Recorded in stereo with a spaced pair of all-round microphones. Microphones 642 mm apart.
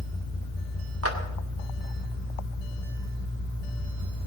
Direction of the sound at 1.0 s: 20° right (ahead or behind).